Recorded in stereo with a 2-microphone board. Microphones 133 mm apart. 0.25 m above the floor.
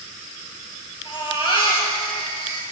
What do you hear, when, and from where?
1.1 s a baby crying: 35° left (ahead or behind), 3 m